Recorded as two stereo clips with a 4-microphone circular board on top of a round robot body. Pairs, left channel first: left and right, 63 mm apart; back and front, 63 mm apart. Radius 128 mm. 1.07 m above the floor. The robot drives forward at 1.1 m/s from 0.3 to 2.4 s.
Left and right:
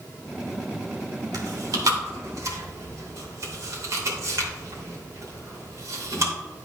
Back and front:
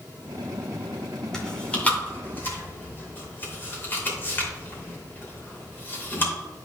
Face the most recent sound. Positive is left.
turn(degrees=-125)